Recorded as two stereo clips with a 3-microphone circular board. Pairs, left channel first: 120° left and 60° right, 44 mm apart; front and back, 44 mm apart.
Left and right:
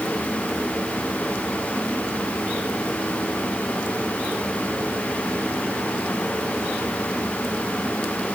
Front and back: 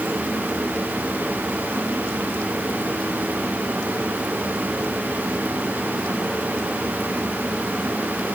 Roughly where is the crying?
I don't hear crying.